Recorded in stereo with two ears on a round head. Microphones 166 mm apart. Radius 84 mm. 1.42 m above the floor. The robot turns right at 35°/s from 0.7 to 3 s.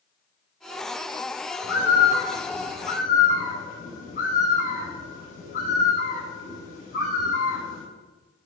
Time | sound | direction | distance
1.6 | a bird | 80° left | 5 m